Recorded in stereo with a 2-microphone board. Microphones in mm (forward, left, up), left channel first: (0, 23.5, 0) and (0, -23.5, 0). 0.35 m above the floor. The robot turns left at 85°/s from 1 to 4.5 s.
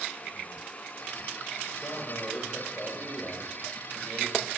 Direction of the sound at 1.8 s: 100° left.